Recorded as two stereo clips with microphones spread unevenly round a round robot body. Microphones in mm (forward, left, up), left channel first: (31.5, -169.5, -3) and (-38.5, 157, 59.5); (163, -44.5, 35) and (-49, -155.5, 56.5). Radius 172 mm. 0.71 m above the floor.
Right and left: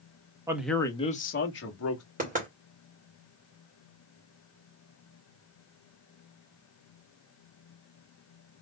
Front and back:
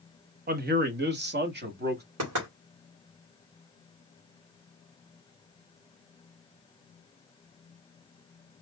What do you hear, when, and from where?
0.5 s a man speaking: 165° right, 1.1 m; by 2.0 s 105° right, 1.9 m
2.2 s knocking: 170° left, 2.5 m